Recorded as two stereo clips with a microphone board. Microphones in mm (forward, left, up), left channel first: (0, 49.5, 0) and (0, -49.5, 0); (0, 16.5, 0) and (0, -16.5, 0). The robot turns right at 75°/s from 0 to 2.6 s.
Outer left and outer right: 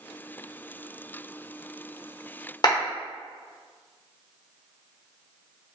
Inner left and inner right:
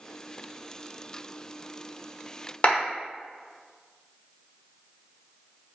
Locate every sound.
2.6 s a clap: 45° left (ahead or behind), 1.1 m